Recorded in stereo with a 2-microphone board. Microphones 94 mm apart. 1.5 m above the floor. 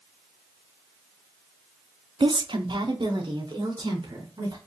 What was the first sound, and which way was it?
A woman speaking, 60° right (ahead or behind).